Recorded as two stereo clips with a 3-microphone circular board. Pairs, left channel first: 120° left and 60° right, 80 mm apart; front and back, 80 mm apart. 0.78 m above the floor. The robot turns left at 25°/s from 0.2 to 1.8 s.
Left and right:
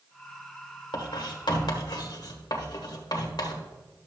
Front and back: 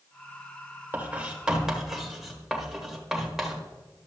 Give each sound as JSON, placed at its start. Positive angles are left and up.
{"t": 0.9, "sound": "writing", "azimuth_deg": 115, "distance_m": 1.4}